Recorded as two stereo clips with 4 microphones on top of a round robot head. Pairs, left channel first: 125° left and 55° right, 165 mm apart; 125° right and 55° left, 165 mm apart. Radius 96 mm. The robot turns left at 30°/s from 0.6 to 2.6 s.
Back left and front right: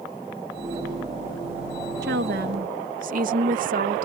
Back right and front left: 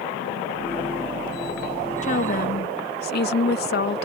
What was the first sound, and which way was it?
A woman speaking, 80° right.